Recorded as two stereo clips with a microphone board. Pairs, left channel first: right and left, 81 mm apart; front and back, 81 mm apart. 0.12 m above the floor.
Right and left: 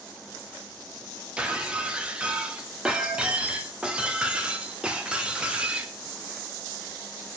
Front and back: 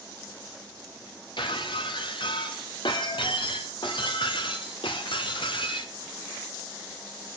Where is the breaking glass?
10° left, 3 m.